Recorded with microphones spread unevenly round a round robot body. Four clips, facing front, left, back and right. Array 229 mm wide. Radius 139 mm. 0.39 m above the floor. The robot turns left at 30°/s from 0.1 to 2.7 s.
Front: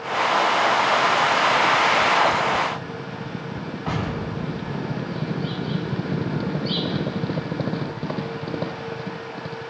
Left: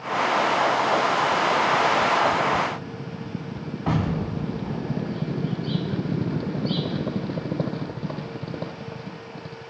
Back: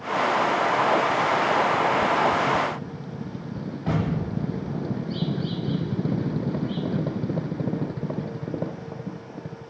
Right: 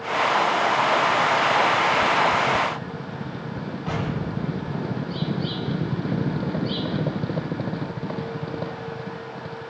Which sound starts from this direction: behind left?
An explosion, at 3.9 s.